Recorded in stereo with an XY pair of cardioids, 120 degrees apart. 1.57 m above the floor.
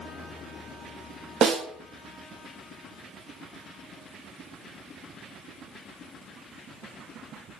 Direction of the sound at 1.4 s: 55° right.